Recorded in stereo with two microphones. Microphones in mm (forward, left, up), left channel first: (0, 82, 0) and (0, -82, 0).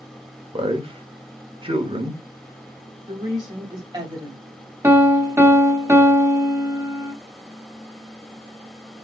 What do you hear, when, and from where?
0.5 s a man speaking: 35° right (ahead or behind), 1.1 m
3.1 s a woman speaking: 25° right (ahead or behind), 2.0 m
4.8 s a piano: 15° right (ahead or behind), 1.1 m